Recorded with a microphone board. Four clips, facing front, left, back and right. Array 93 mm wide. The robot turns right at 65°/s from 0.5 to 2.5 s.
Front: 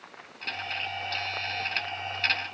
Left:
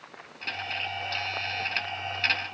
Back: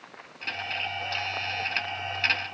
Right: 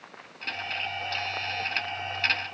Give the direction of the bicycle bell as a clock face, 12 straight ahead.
I don't hear a bicycle bell.